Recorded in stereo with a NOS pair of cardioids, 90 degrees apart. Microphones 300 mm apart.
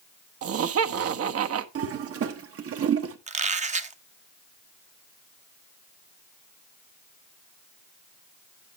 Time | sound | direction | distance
0.4 | laughter | 55° right | 1.1 m
1.8 | a toilet flushing | 55° right | 1.4 m
3.3 | a squeak | 25° right | 0.8 m